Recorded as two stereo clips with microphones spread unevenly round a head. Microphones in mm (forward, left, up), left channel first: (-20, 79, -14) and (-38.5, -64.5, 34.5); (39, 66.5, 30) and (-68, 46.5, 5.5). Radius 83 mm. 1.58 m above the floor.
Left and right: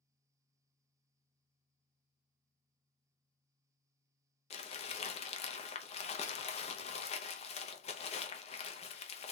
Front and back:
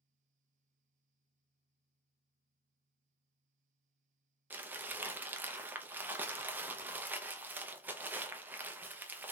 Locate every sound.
4.5 s crumpling: 110° left, 0.7 m